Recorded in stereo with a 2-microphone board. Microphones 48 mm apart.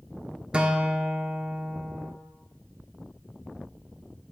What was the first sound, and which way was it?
A guitar, 25° right (ahead or behind).